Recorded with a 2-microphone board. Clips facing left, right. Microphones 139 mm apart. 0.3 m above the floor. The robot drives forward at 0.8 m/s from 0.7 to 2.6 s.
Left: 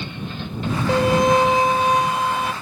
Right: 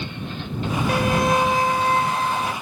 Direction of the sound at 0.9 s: 25° left (ahead or behind).